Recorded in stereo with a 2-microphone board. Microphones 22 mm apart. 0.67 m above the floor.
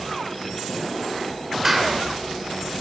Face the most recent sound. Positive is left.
turn(degrees=-15)  # may be behind; listen again after turning